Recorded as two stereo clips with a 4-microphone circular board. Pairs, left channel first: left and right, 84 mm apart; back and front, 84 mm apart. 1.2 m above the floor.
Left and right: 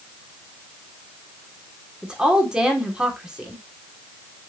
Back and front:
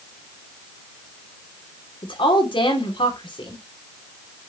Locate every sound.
2.0 s a woman speaking: 170° right, 2.5 m